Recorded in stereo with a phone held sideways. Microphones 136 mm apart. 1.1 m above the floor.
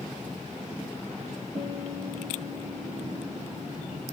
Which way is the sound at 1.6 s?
35° right (ahead or behind).